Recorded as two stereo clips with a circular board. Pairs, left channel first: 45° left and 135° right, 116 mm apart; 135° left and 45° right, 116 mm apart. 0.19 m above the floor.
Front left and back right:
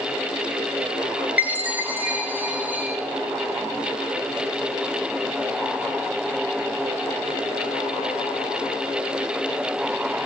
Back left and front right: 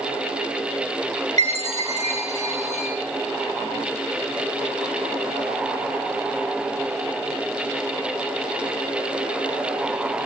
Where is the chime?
60° right, 5 m.